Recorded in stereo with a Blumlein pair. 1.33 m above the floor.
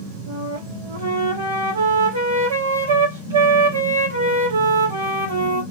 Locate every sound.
0.3 s a flute: 70° right, 1.0 m